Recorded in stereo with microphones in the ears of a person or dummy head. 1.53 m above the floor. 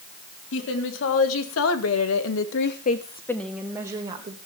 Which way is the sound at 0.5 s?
70° left (ahead or behind).